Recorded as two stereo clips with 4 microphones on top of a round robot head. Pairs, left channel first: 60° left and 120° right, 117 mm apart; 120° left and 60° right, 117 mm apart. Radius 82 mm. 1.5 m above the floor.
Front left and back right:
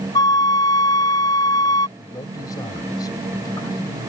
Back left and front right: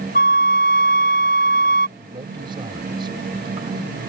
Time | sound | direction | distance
0.1 | a flute | 120° left | ?
2.0 | a man speaking | 5° right | ?